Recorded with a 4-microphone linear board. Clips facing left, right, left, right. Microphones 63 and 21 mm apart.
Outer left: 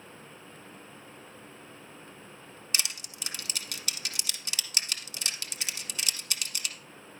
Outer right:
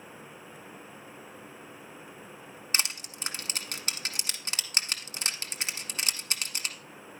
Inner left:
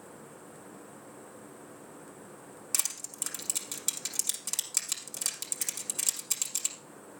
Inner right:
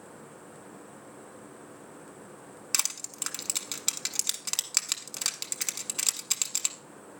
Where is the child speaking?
I don't hear a child speaking.